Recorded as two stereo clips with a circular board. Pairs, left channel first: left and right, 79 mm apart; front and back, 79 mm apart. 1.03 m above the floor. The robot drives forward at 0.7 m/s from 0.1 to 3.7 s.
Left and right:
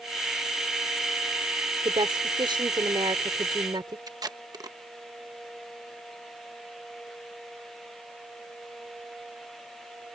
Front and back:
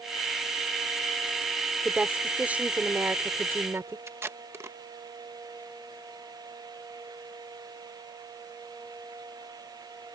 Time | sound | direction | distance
1.9 | a woman speaking | 100° right | ?
4.1 | tape being pulled | 125° right | ?